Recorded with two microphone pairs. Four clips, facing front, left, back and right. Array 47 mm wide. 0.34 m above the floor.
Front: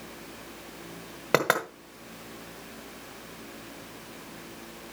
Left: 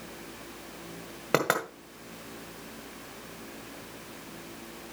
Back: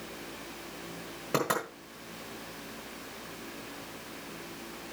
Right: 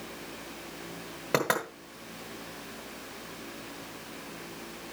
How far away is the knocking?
About 1.8 m.